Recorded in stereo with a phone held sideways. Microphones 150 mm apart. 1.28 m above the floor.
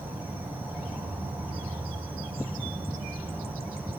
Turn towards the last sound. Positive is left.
turn(degrees=-10)  # may be behind; listen again after turning